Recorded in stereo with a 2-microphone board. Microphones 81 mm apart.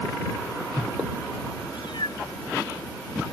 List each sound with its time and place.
1.7 s a cat meowing: 75° left (ahead or behind); by 3.3 s 90° left